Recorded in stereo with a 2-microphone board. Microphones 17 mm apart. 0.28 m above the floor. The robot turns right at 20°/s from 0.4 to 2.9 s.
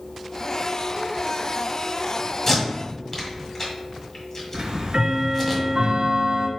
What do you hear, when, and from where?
2.5 s tape being pulled: 25° left (ahead or behind), 1.4 m; by 5.5 s 30° left (ahead or behind), 1.4 m
4.5 s ticking: 55° right (ahead or behind), 0.6 m